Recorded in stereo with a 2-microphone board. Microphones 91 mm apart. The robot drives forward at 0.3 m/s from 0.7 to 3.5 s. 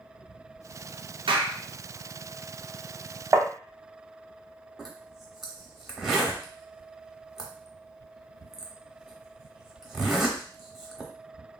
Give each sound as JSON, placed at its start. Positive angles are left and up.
{"t": 1.3, "sound": "a clap", "side_deg": -85, "distance_m": 0.5}
{"t": 3.3, "sound": "tapping", "side_deg": -40, "distance_m": 0.6}
{"t": 4.8, "sound": "a zipper", "side_deg": -5, "distance_m": 0.7}